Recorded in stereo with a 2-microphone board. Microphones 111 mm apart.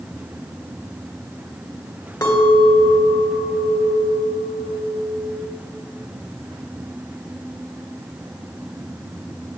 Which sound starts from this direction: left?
A clink, at 2.2 s.